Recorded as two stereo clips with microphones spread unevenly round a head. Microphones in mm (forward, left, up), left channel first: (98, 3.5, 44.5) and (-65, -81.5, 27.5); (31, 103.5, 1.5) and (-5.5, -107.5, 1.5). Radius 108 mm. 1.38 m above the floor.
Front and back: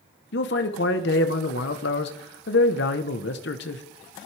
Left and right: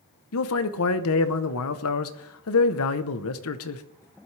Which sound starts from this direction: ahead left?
A man speaking, at 0.3 s.